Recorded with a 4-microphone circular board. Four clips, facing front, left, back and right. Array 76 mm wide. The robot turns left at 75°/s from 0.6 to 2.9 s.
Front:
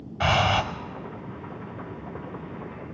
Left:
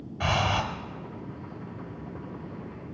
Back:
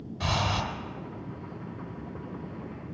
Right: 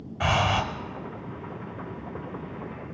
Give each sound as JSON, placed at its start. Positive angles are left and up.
{"t": 0.2, "sound": "breathing", "azimuth_deg": -20, "distance_m": 0.9}